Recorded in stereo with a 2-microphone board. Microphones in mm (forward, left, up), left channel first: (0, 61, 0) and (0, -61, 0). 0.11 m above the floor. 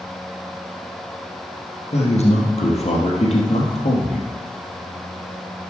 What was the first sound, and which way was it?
A man speaking, 65° left (ahead or behind).